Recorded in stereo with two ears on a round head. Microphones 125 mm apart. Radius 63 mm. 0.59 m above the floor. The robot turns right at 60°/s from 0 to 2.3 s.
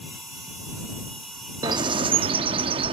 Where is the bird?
130° right; by 2.9 s 90° right.